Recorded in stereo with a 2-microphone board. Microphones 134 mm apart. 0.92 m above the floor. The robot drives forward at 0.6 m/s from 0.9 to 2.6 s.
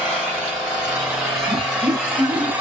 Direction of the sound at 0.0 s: 5° right (ahead or behind).